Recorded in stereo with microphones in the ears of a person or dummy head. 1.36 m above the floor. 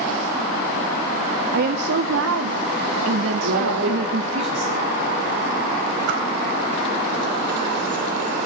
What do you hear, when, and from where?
1.5 s a woman speaking: 55° right (ahead or behind), 0.8 m; by 4.4 s 80° right, 2 m
3.4 s a man speaking: 60° right (ahead or behind), 3 m
6.1 s a whoosh: 55° right (ahead or behind), 3.5 m